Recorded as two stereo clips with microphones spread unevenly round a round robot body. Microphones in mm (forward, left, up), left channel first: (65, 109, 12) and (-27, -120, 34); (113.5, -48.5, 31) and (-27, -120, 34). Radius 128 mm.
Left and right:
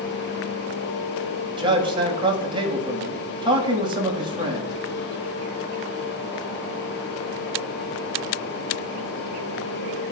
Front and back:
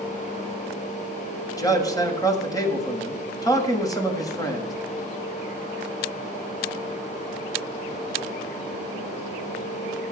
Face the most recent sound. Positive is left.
turn(degrees=-40)